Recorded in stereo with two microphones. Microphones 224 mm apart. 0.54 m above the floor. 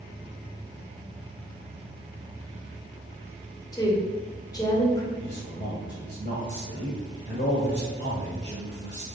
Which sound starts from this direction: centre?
A woman speaking, at 3.7 s.